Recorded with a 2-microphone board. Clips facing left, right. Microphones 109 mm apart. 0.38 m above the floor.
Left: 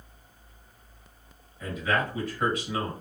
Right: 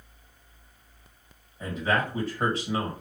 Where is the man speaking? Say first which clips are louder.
Right 1 dB; 35° right (ahead or behind), 2 m.